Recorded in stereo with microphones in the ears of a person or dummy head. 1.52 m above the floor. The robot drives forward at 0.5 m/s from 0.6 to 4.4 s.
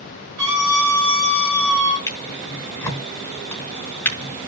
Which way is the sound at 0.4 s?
50° right (ahead or behind).